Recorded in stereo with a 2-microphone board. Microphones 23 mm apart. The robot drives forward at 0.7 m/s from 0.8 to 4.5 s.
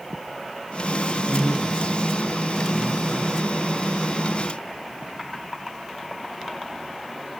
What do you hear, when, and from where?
1.3 s a man speaking: 60° right (ahead or behind), 6 m; by 3.4 s 50° right (ahead or behind), 7 m